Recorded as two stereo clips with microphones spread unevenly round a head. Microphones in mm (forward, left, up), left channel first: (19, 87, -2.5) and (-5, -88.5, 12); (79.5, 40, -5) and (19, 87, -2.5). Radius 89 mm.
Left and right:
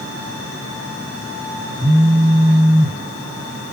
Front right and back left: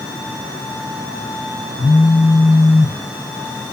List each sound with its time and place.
1.8 s a phone buzzing: 25° right, 0.5 m